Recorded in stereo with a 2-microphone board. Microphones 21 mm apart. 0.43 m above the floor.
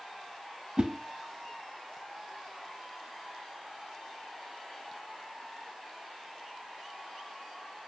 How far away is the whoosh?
About 0.8 m.